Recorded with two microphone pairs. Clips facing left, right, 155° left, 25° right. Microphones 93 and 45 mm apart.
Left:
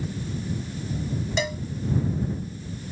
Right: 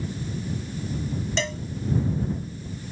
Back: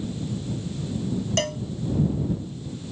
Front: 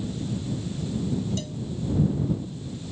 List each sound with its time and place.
1.4 s a cowbell: 170° left